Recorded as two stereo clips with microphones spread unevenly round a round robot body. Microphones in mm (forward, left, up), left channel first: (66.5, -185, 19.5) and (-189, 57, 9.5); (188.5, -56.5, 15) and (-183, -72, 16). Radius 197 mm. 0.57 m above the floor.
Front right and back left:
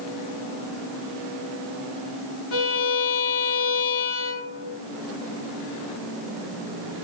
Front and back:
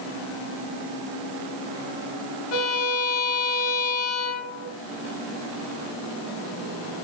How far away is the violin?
About 3 m.